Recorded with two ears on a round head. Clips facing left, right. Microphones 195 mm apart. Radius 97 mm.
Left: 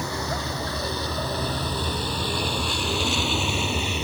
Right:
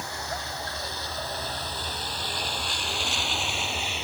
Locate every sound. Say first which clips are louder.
0.0 s a vehicle: left 7 dB; 70° left (ahead or behind); by 4.0 s 85° left